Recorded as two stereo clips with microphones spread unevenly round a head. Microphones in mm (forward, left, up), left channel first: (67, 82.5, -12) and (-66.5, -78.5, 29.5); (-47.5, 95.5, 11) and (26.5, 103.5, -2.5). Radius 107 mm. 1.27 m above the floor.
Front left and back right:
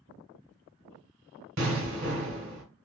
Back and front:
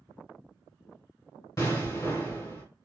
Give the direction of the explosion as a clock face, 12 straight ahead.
5 o'clock.